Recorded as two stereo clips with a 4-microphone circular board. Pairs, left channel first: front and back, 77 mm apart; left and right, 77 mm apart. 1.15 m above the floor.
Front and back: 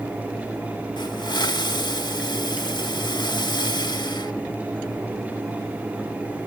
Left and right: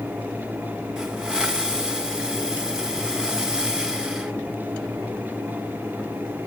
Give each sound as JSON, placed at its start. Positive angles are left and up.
{"t": 1.0, "sound": "a hiss", "azimuth_deg": -10, "distance_m": 1.2}